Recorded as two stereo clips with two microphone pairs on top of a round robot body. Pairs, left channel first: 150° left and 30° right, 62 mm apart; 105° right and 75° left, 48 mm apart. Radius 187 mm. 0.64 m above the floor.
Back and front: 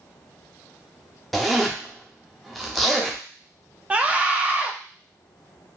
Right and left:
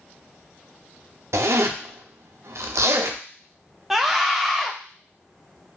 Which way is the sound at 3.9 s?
15° left.